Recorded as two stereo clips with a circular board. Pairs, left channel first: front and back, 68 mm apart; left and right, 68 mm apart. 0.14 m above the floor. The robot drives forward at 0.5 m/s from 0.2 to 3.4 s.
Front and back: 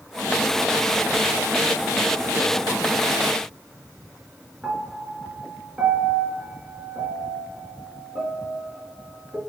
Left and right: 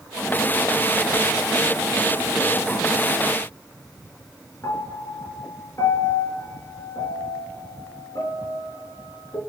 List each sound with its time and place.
4.6 s a piano: 120° left, 1.7 m